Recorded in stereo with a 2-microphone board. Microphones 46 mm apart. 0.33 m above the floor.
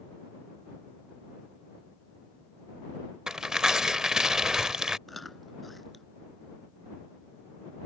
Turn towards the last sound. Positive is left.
turn(degrees=5)  # may be behind; listen again after turning